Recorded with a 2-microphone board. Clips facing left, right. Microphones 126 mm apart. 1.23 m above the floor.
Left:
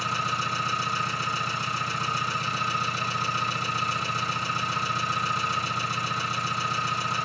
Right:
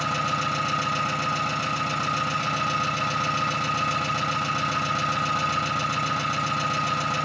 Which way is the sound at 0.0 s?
75° right (ahead or behind).